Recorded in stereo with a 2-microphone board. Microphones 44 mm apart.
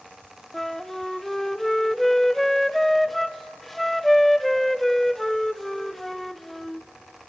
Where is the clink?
I don't hear a clink.